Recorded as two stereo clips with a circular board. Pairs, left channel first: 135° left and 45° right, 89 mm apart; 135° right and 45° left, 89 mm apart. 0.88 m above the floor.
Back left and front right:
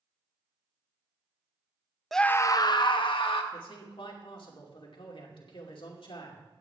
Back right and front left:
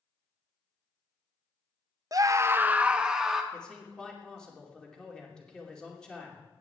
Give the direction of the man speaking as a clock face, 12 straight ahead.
7 o'clock.